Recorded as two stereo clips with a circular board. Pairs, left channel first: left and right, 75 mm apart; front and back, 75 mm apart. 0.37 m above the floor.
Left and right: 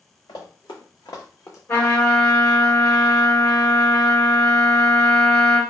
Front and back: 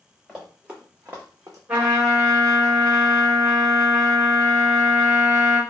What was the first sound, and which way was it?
Running footsteps, 95° left.